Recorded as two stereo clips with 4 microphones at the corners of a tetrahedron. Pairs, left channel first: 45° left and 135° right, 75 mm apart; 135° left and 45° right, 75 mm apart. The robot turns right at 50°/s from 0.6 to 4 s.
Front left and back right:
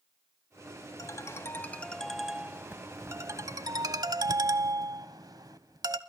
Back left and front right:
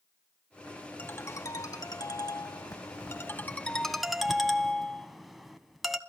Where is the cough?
I don't hear a cough.